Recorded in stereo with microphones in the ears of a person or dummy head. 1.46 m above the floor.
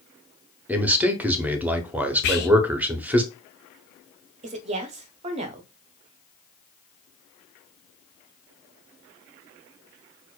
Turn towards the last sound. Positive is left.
turn(degrees=-35)  # may be behind; listen again after turning